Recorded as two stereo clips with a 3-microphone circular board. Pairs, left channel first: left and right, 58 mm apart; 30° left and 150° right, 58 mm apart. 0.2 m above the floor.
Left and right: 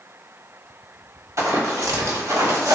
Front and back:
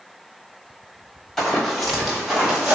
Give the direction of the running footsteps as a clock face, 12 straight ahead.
2 o'clock.